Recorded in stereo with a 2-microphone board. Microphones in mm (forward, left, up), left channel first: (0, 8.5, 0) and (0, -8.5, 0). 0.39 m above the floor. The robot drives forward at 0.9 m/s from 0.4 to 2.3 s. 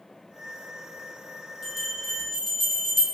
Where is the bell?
15° left (ahead or behind), 1.9 m; by 3.0 s 20° left (ahead or behind), 1.6 m.